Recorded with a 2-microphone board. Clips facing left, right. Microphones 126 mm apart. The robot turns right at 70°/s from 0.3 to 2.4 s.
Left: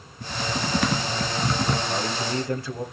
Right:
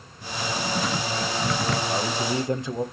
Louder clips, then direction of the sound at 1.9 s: Right 1 dB; 5° right (ahead or behind).